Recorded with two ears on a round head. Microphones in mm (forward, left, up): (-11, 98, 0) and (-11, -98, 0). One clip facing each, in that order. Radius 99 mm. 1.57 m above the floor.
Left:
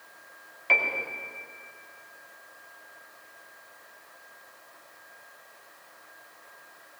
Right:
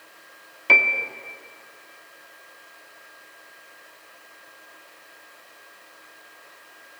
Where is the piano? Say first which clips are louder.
Right 4 dB; 55° right (ahead or behind), 1.9 m.